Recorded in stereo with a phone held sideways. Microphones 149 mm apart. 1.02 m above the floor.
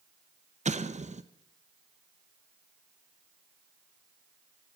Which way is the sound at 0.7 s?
50° right (ahead or behind).